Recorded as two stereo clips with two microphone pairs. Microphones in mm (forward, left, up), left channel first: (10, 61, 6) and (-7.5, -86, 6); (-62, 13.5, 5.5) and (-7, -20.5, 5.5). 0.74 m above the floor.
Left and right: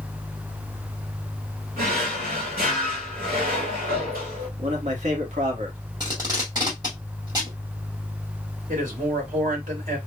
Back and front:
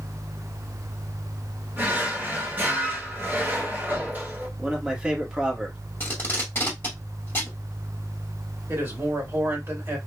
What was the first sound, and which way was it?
A drawer, 95° right.